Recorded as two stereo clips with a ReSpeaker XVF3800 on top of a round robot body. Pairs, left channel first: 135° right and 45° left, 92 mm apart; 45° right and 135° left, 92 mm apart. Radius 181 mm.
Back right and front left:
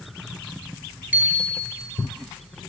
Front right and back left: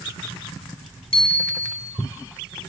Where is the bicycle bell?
30° right, 4 m.